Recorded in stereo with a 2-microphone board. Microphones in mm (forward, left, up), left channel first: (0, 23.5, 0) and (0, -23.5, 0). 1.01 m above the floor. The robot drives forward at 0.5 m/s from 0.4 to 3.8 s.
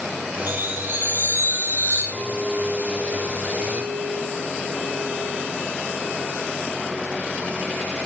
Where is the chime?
55° right (ahead or behind), 9 m; by 2.0 s 50° right (ahead or behind), 9.5 m.